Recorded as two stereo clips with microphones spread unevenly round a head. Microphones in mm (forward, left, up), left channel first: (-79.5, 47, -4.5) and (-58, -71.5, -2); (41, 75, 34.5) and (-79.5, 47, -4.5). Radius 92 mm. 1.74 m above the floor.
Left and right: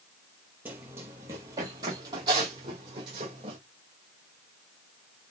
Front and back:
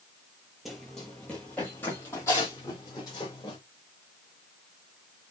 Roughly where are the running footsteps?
Ahead right.